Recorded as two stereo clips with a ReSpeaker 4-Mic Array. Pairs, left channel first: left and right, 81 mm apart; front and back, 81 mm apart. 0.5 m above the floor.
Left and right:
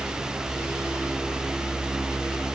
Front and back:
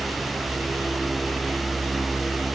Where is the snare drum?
No snare drum in this recording.